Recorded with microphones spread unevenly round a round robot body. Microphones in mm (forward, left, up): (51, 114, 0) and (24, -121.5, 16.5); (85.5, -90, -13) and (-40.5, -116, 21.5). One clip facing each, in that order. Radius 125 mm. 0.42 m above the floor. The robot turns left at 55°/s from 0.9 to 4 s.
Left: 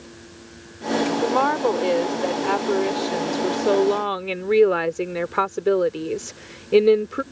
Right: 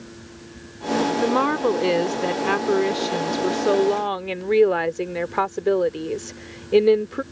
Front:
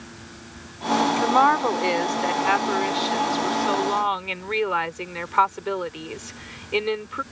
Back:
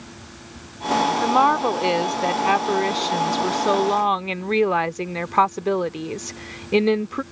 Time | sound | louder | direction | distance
1.2 | a woman speaking | right 1 dB, back 1 dB | 55° right | ?